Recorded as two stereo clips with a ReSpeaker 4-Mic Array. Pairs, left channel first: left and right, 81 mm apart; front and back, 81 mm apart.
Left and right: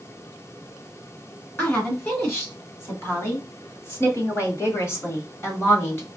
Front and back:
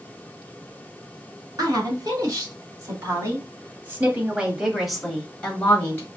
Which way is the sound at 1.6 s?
150° left.